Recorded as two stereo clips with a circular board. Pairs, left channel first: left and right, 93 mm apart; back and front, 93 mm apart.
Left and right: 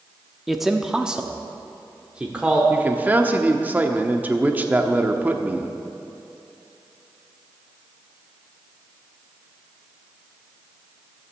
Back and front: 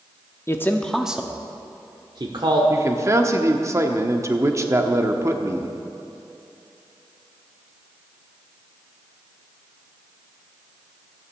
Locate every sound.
0.5 s a man speaking: straight behind, 0.8 m; by 2.6 s 15° right, 1.4 m
2.7 s a man speaking: 35° right, 0.9 m